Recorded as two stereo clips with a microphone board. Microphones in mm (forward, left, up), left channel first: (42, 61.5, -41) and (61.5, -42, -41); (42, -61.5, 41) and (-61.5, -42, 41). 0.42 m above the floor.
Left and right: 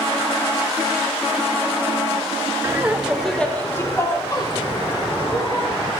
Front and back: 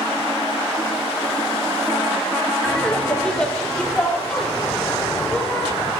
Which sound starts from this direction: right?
Laughter, at 2.6 s.